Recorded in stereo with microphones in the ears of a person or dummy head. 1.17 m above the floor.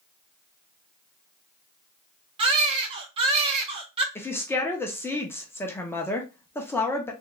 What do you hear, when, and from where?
2.4 s a baby crying: 35° right (ahead or behind), 1.1 m
4.2 s a woman speaking: 15° left (ahead or behind), 0.7 m